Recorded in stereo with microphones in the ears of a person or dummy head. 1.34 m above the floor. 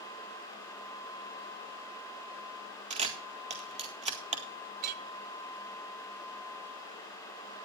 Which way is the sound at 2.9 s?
30° right (ahead or behind).